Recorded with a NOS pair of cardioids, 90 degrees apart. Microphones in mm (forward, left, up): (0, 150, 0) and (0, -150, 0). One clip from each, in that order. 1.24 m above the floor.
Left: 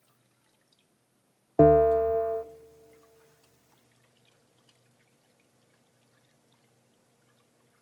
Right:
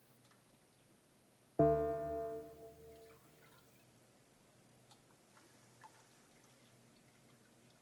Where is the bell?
55° left, 0.5 m.